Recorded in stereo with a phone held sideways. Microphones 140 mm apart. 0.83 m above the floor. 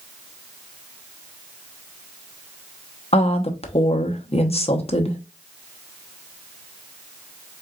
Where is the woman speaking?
45° left (ahead or behind), 0.9 m.